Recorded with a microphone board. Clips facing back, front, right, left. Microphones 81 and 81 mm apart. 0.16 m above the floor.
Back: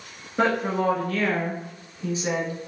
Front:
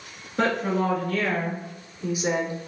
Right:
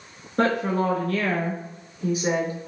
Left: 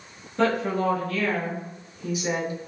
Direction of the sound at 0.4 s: 105° right.